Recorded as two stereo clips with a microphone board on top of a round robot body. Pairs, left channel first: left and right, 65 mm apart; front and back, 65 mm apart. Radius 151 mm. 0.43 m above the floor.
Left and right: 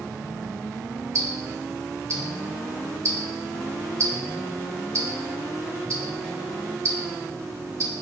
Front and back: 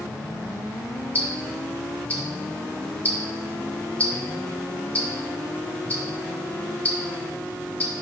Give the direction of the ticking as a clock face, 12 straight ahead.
2 o'clock.